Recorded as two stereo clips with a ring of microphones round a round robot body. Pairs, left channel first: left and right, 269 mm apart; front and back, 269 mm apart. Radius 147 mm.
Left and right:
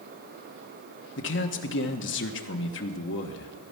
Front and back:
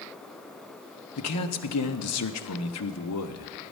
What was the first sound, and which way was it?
A man speaking, 40° left.